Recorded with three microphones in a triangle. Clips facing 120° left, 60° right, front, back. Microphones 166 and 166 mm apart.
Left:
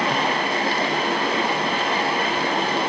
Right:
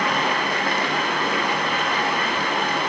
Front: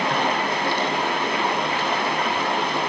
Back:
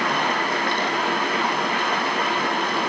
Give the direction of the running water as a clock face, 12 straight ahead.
10 o'clock.